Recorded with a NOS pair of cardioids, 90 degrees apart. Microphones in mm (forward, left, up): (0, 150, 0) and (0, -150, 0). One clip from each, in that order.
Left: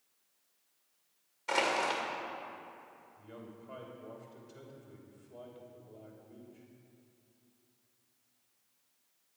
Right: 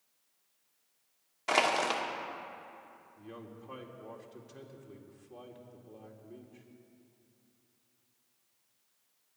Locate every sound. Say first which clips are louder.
1.5 s crushing: right 3 dB; 50° right, 2 m
3.2 s a man speaking: right 3 dB; 50° right, 2.5 m